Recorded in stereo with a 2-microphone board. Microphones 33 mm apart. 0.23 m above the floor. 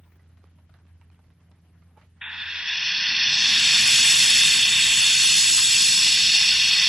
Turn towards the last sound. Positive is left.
turn(degrees=-20)  # may be behind; listen again after turning